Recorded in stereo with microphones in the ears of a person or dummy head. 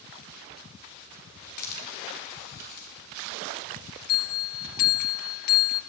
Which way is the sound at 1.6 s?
50° left (ahead or behind).